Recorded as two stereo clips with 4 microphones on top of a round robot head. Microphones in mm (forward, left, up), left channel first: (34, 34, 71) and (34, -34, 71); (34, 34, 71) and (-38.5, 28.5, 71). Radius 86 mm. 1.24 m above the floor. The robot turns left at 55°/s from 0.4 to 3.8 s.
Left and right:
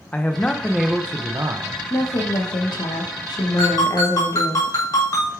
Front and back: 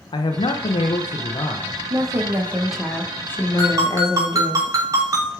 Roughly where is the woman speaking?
Behind left.